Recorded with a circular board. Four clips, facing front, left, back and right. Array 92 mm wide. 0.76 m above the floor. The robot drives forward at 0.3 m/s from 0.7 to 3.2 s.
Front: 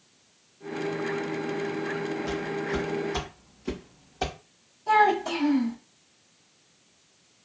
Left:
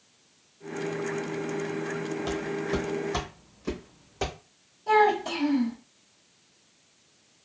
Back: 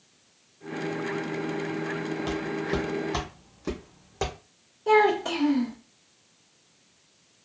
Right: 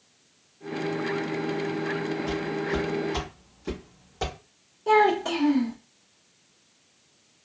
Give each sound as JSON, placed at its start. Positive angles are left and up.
{"t": 2.3, "sound": "footsteps", "azimuth_deg": 140, "distance_m": 1.2}
{"t": 4.9, "sound": "a child speaking", "azimuth_deg": -135, "distance_m": 1.2}